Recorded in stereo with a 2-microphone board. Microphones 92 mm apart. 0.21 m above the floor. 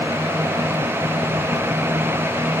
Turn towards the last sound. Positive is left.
No sound to turn to.